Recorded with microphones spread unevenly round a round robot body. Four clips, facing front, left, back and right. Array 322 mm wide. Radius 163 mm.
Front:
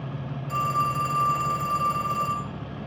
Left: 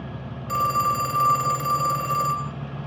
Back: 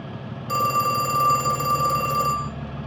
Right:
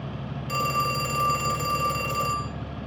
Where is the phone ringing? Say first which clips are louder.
Left 4 dB, back 4 dB; 175° right, 0.6 m.